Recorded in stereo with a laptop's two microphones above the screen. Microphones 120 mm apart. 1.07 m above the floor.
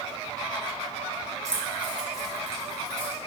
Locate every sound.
1.4 s keys jangling: 25° right (ahead or behind), 0.7 m; by 3.2 s 10° left (ahead or behind), 1.6 m